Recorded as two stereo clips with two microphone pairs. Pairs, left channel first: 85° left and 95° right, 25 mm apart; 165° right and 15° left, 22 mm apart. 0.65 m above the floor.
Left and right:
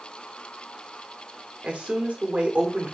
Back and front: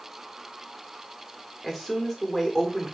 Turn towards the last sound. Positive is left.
turn(degrees=-95)